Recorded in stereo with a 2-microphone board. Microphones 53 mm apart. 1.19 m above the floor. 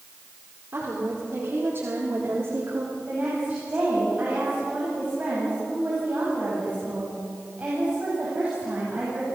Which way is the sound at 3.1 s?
30° right (ahead or behind).